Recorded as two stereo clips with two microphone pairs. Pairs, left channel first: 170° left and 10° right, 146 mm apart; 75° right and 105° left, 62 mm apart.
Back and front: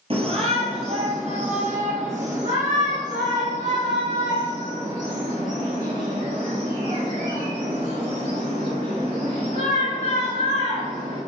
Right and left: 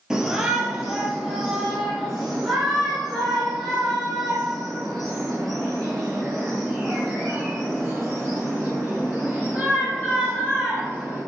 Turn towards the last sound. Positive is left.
turn(degrees=10)